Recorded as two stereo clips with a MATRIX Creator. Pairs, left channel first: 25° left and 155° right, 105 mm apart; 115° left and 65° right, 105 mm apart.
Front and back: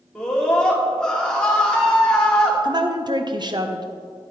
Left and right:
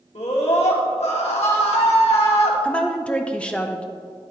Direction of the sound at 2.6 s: 170° right.